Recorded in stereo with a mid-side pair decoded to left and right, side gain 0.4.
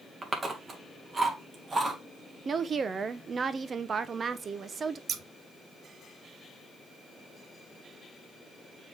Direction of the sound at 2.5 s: 50° right.